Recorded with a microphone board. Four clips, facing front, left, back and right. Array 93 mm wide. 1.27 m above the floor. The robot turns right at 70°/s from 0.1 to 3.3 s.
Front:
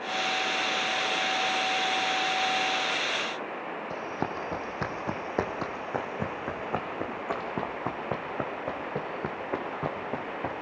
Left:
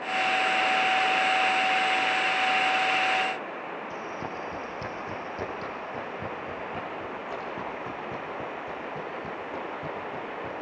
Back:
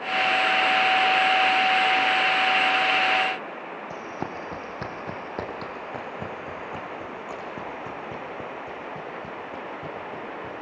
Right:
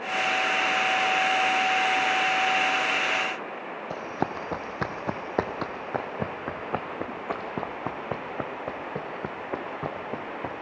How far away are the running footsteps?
About 2.5 m.